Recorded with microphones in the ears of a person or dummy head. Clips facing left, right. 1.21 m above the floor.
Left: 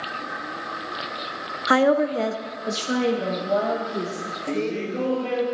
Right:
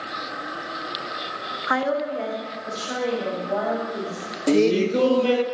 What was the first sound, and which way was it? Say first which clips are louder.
A woman speaking: left 6 dB; 40° left (ahead or behind).